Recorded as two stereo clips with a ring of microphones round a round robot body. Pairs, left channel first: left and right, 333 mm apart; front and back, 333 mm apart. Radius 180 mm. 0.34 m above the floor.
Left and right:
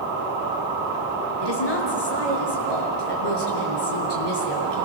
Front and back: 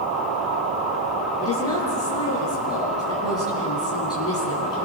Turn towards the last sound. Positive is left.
turn(degrees=80)